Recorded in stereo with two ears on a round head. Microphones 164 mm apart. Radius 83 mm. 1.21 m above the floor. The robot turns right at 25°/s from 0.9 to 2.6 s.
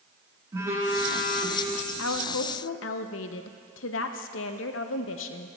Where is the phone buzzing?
20° right (ahead or behind), 1.4 m; by 1.6 s 35° right (ahead or behind), 1.4 m.